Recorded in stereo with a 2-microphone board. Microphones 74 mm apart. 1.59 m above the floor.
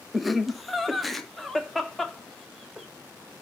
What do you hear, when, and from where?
0.1 s laughter: centre (ahead or behind), 1.2 m